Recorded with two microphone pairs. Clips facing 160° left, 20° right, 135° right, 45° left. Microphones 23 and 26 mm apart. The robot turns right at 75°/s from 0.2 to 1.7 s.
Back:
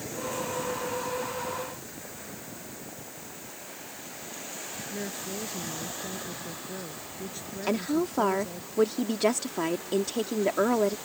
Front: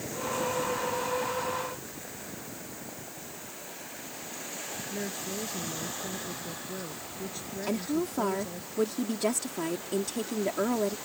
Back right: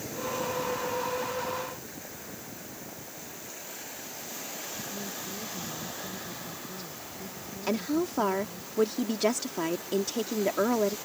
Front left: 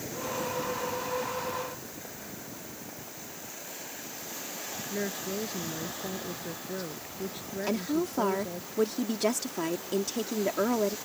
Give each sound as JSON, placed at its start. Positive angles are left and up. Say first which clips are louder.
{"t": 4.9, "sound": "a woman speaking", "louder": "even, front left 4 dB", "azimuth_deg": 65}
{"t": 7.7, "sound": "a woman speaking", "louder": "back 3 dB, back right 1 dB", "azimuth_deg": 150}